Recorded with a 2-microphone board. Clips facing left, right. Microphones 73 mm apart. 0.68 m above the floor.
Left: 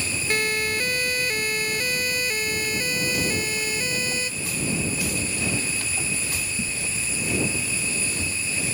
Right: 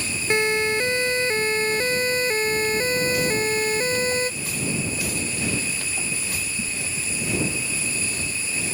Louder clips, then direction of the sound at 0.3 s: Right 5 dB; 25° right (ahead or behind).